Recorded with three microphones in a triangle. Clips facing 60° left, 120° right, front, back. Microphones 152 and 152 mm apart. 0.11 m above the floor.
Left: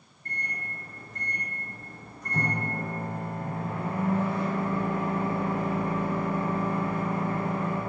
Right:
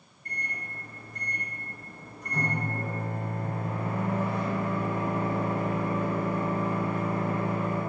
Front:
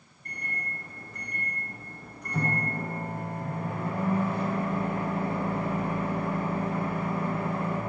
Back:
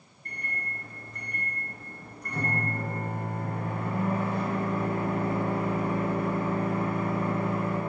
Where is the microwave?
175° left, 1.7 m.